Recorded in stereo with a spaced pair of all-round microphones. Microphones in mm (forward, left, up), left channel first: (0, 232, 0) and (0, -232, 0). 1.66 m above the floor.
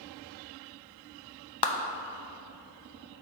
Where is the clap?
60° left (ahead or behind), 0.7 m.